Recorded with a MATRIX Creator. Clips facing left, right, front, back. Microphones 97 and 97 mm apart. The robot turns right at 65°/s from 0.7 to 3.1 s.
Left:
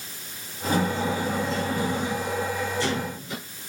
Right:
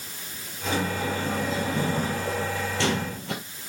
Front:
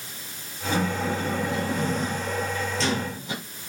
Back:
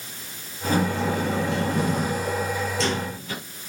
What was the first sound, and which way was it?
A sliding door, 130° left.